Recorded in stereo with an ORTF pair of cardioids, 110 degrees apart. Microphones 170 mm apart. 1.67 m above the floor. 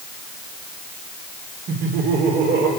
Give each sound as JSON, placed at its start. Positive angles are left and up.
{"t": 1.7, "sound": "laughter", "azimuth_deg": -70, "distance_m": 4.5}